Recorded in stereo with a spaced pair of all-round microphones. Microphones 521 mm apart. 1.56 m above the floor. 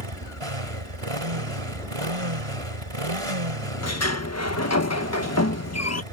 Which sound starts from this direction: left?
A sliding door, at 3.8 s.